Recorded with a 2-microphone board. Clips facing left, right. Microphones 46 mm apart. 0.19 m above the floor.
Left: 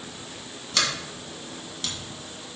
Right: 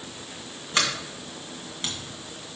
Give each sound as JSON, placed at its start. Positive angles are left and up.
{"t": 0.7, "sound": "a sliding door", "side_deg": -30, "distance_m": 1.9}